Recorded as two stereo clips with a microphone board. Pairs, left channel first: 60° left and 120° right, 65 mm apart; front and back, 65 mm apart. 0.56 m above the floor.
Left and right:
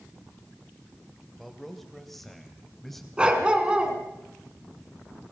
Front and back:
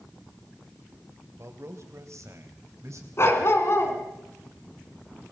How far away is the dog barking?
About 2.5 m.